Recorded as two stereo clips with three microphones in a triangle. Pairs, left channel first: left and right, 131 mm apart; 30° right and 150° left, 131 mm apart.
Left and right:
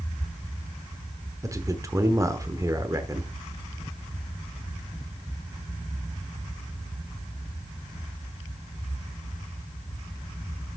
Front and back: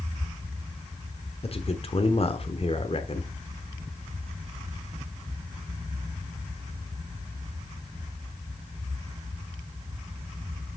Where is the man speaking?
35° right, 1.0 m.